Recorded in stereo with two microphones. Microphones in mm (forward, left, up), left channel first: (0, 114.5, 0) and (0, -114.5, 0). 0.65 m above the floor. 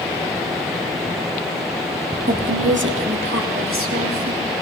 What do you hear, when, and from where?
2.3 s a woman speaking: 40° right (ahead or behind), 1.0 m; by 4.4 s 70° right (ahead or behind), 3 m